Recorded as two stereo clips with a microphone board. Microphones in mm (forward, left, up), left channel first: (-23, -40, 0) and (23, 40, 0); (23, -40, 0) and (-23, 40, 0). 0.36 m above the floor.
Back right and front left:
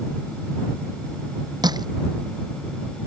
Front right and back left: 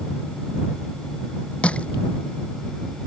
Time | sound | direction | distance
1.6 | crushing | 15° left | ?